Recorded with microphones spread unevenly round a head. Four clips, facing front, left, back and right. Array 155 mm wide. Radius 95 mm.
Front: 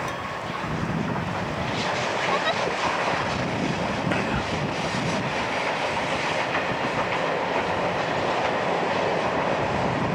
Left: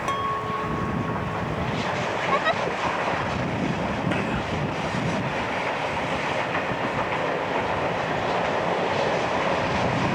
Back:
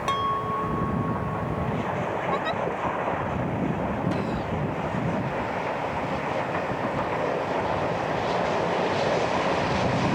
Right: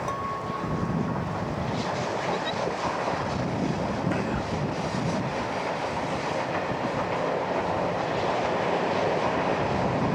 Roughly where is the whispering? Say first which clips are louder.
Left 2 dB, front 2 dB; ahead left.